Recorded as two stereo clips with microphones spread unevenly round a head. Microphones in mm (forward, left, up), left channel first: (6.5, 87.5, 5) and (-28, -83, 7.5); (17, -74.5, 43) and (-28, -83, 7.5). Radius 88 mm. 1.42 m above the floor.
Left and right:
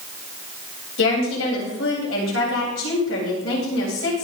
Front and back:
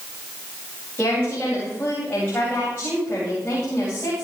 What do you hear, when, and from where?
1.0 s a woman speaking: 85° left, 9.5 m